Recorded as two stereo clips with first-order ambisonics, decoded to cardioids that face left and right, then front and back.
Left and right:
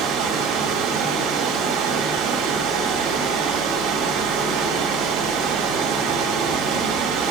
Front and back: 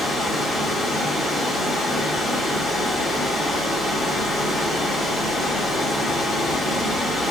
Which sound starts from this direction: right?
Running water, at 0.0 s.